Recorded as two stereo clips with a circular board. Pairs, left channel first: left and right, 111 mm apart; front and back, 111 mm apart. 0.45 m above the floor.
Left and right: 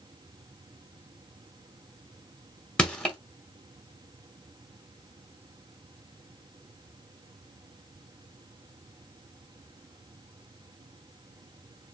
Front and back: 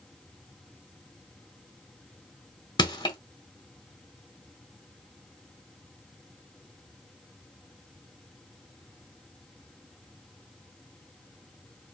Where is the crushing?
15° left, 1.2 m.